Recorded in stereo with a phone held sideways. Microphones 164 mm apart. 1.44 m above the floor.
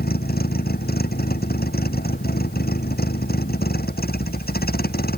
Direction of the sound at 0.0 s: 70° left (ahead or behind).